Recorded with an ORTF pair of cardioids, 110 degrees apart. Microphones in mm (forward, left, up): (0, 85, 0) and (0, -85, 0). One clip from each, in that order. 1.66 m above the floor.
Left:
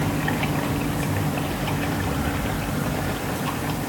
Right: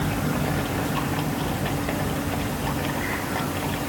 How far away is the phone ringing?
No phone ringing in this recording.